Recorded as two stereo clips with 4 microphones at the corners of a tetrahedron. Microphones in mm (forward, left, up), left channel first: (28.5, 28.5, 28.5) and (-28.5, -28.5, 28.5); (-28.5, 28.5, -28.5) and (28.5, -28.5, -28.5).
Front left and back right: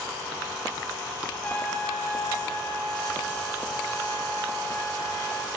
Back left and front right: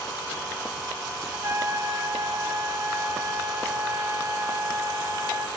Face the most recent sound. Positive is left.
turn(degrees=-10)